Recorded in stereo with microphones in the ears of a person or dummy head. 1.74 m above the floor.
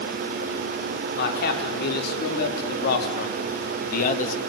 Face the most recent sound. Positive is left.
turn(degrees=50)  # may be behind; listen again after turning